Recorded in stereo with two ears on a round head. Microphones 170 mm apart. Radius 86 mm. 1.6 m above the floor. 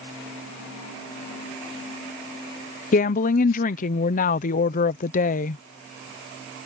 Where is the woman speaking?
45° left (ahead or behind).